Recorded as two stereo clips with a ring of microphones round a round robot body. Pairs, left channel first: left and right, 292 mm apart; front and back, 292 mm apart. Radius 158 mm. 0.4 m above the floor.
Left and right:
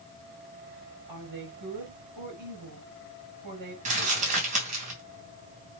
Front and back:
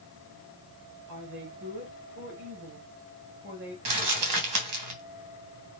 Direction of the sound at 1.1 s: 125° right.